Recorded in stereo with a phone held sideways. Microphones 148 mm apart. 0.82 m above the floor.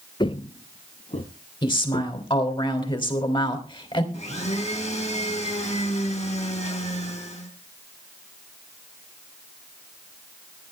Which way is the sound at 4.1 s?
50° left (ahead or behind).